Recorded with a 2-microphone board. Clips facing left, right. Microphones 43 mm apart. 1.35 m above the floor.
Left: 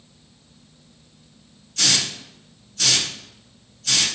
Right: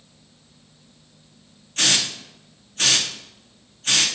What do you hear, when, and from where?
1.8 s a hiss: 40° right (ahead or behind), 0.5 m